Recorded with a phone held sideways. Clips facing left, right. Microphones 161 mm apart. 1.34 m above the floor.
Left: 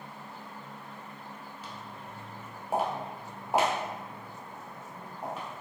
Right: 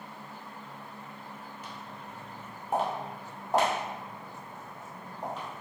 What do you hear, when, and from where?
1.6 s footsteps: 10° left (ahead or behind), 1.4 m; by 5.6 s 5° left (ahead or behind), 2 m